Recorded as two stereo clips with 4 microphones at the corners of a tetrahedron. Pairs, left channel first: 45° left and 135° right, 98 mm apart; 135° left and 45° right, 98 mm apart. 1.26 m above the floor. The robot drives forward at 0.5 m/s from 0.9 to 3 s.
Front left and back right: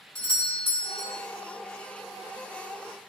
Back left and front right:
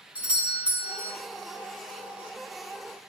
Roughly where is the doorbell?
Ahead left.